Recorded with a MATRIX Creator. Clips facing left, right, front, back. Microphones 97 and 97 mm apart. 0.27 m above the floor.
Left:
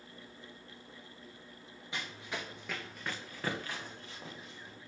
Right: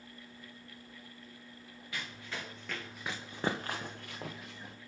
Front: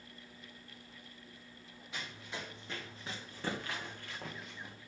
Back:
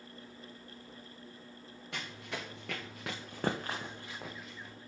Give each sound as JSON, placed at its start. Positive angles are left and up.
{"t": 1.9, "sound": "running footsteps", "azimuth_deg": 160, "distance_m": 2.5}